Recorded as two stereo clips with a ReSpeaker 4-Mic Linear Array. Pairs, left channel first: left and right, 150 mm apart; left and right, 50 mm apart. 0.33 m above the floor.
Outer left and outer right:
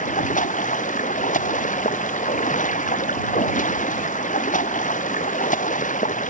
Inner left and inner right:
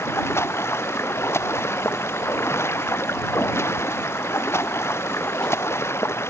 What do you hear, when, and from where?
0.0 s running water: 60° left (ahead or behind)